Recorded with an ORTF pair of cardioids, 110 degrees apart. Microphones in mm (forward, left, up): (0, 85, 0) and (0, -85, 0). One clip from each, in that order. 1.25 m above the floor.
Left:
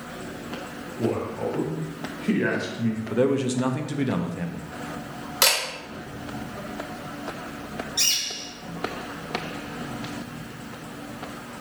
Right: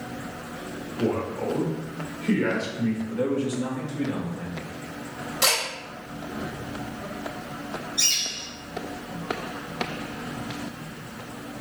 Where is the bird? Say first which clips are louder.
Even; 65° left, 1.5 m.